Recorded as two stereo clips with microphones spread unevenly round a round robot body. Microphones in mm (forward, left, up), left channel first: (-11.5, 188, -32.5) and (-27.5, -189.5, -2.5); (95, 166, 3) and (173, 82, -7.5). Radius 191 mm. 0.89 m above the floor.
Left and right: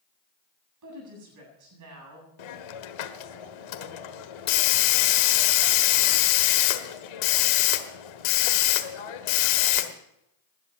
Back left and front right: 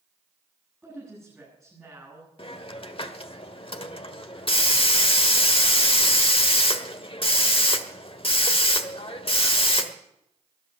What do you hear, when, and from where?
0.8 s a woman speaking: 135° right, 8.5 m
2.4 s a hiss: 95° left, 1.4 m